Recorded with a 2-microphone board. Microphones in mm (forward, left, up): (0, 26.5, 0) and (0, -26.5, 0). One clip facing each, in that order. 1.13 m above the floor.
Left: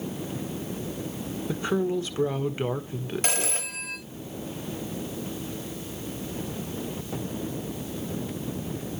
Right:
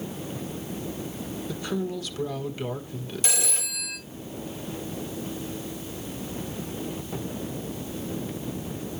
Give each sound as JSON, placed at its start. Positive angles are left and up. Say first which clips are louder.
{"t": 1.5, "sound": "a woman speaking", "louder": "left 5 dB", "side_deg": 30, "distance_m": 1.3}
{"t": 3.2, "sound": "a phone ringing", "louder": "left 2 dB", "side_deg": 55, "distance_m": 2.0}